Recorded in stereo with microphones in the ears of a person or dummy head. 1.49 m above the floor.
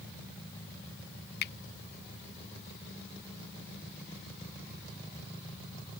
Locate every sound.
1.4 s a finger snap: 55° left (ahead or behind)